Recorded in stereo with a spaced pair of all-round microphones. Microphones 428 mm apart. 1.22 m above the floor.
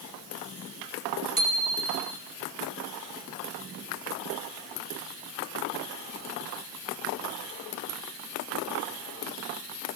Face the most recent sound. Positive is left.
turn(degrees=-50)  # may be behind; listen again after turning